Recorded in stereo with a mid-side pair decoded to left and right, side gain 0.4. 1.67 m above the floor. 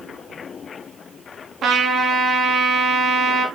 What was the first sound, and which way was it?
A trumpet, 60° right.